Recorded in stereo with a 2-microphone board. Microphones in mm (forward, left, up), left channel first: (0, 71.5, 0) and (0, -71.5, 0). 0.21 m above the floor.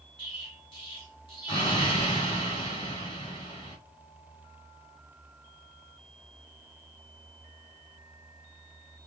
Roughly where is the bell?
I don't hear a bell.